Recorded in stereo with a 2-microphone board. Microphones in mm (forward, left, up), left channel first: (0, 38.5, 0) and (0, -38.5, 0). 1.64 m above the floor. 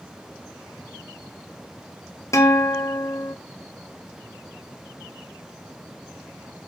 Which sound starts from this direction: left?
A guitar, at 2.3 s.